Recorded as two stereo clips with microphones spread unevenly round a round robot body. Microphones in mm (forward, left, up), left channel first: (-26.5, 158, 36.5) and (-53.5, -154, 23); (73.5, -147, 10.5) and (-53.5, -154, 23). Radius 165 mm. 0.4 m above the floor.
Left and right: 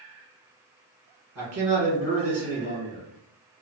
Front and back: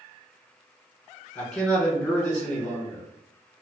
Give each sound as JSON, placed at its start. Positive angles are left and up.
{"t": 1.4, "sound": "a man speaking", "azimuth_deg": -65, "distance_m": 1.6}